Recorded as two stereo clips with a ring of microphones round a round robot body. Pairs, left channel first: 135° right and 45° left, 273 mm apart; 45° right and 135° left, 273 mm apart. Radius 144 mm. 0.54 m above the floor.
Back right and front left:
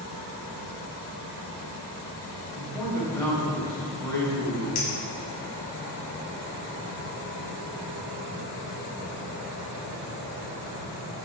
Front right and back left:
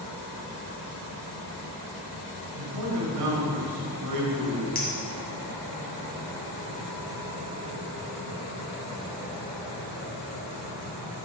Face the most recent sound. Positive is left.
turn(degrees=-105)